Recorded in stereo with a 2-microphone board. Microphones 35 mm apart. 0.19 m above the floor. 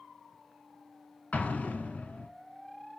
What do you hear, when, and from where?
1.3 s an explosion: 45° left (ahead or behind), 1.0 m